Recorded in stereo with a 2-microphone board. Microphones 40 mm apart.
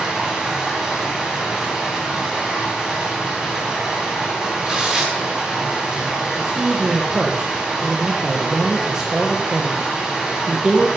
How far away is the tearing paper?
About 8.5 m.